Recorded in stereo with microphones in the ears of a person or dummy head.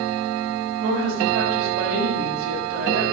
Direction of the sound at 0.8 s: 55° right (ahead or behind).